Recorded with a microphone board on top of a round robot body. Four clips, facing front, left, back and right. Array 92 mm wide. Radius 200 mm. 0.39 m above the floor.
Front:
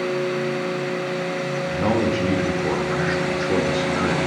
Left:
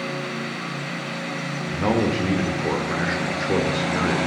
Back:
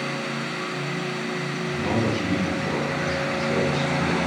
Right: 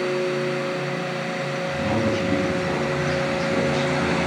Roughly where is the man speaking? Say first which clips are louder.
Left 3 dB, front 3 dB; ahead left.